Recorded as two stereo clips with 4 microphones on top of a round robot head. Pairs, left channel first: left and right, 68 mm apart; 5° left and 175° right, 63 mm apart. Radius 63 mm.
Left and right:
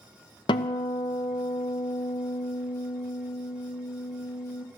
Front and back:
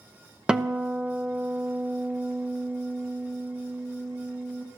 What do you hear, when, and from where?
0.5 s a guitar: 110° left, 1.0 m